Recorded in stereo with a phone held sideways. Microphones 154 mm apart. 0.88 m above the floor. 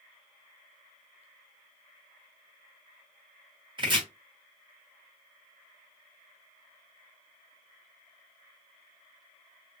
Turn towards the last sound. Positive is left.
turn(degrees=-30)  # may be behind; listen again after turning